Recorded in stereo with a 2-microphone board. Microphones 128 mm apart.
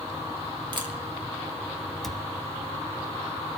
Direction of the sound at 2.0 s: 5° left (ahead or behind).